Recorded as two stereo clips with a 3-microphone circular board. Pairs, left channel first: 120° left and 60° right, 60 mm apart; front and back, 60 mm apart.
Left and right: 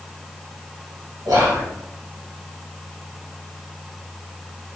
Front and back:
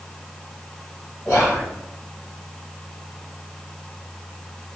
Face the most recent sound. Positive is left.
turn(degrees=-75)